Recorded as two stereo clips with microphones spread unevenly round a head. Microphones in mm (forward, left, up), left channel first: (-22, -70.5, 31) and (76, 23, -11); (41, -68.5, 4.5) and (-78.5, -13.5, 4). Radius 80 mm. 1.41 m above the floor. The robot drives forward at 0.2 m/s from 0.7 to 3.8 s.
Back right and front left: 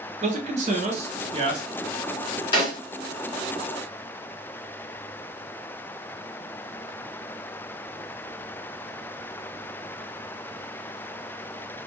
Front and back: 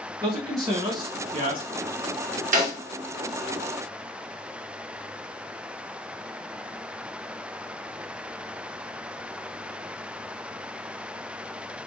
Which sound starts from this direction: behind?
A snare drum, at 2.5 s.